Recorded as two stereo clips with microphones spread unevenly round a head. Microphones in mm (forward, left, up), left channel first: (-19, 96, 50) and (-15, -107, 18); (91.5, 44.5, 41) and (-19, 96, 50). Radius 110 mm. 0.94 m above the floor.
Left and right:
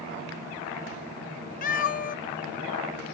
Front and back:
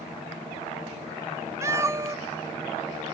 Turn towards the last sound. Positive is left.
turn(degrees=100)